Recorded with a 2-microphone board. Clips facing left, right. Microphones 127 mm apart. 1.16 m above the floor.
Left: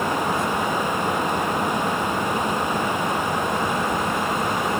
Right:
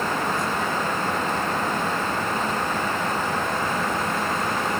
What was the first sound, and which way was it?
Only background noise.